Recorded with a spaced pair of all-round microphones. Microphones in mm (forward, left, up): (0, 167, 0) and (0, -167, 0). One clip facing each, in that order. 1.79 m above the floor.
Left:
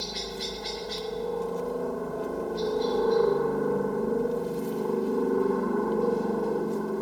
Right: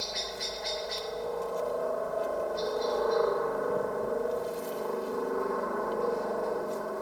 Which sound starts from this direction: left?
A helicopter, at 0.0 s.